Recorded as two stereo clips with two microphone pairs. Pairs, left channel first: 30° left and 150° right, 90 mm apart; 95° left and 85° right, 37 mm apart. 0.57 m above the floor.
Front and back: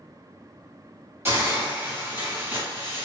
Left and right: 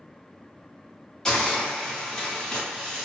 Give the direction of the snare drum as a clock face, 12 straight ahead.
No snare drum in this recording.